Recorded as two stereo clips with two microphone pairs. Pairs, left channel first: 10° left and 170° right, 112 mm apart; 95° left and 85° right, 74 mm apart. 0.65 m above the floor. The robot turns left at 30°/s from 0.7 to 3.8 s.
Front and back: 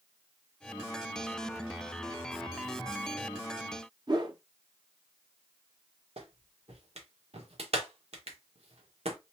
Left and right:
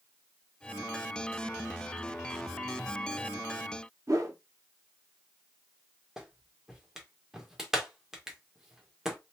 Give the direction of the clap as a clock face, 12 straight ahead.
6 o'clock.